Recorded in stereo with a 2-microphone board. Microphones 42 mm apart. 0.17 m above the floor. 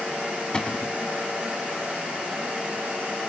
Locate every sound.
0.5 s a cupboard door: 20° left (ahead or behind), 0.6 m